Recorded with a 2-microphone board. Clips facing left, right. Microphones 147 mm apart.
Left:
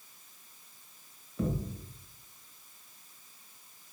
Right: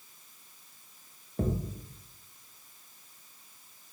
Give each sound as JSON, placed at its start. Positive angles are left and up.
{"t": 1.4, "sound": "a thud", "side_deg": -45, "distance_m": 0.7}